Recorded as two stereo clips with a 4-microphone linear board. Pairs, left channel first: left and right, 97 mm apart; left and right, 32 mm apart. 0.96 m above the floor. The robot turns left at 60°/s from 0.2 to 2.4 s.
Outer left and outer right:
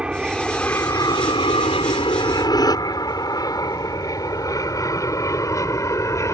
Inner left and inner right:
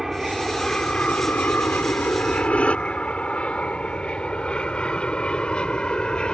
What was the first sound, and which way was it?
An aircraft, 10° right (ahead or behind).